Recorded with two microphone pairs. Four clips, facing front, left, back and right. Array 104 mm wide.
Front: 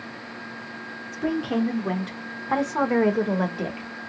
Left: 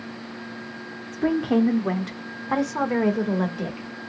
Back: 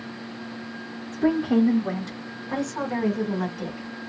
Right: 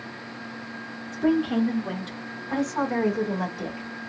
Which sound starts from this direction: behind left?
A woman speaking, at 1.1 s.